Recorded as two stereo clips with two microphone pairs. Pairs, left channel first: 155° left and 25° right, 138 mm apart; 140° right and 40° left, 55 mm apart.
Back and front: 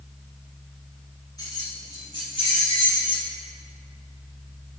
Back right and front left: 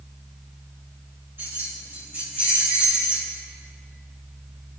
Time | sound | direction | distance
1.4 | keys jangling | 90° left | 4 m